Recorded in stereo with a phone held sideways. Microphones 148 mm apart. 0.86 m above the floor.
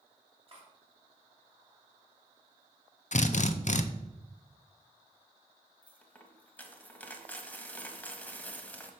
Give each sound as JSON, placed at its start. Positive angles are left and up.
{"t": 0.5, "sound": "cutlery clinking", "side_deg": -40, "distance_m": 2.5}
{"t": 3.1, "sound": "a drill", "side_deg": 55, "distance_m": 0.5}
{"t": 5.8, "sound": "a dropped coin", "side_deg": 10, "distance_m": 1.0}